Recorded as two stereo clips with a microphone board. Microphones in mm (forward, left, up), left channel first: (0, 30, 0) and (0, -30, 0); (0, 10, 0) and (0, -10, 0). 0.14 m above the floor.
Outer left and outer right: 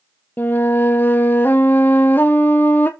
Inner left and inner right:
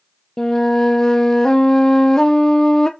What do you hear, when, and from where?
0.4 s a flute: 30° left (ahead or behind), 1.0 m